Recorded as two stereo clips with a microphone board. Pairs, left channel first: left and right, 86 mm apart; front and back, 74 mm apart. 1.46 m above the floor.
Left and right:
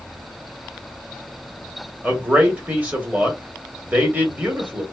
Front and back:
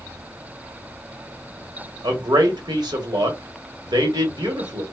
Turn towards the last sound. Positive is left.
turn(degrees=-160)